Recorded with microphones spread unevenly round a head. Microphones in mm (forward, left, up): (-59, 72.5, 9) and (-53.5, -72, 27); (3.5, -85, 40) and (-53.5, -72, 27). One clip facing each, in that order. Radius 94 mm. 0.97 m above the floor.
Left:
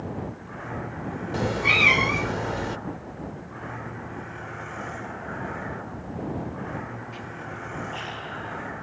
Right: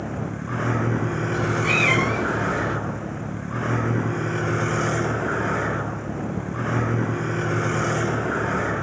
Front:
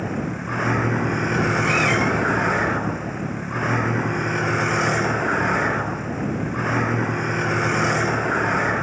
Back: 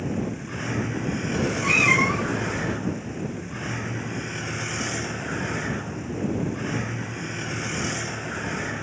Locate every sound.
0.0 s a vehicle: 50° right
1.3 s a cat meowing: 110° left